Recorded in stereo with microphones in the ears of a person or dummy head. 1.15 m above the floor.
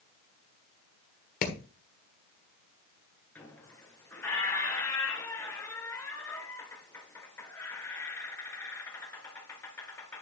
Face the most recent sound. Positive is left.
turn(degrees=15)  # may be behind; listen again after turning